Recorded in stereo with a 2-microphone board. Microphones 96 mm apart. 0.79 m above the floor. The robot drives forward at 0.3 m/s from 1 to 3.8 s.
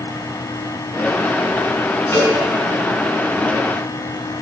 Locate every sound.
2.1 s a cowbell: 25° left (ahead or behind), 4.5 m